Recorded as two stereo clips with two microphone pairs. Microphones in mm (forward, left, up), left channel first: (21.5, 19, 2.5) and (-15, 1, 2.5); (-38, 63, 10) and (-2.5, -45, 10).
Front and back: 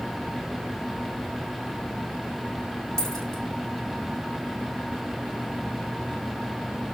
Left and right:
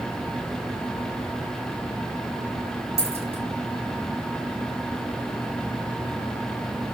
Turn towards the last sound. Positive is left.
turn(degrees=-45)